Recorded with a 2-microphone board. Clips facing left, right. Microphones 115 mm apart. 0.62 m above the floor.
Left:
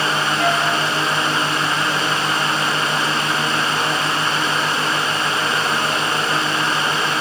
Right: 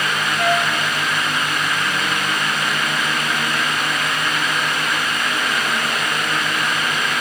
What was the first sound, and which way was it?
A flute, 5° right (ahead or behind).